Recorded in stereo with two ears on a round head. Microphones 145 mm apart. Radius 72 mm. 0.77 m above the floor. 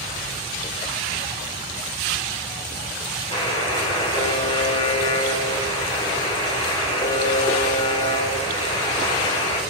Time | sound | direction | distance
3.3 | a buzzer | 35° left (ahead or behind) | 3.5 m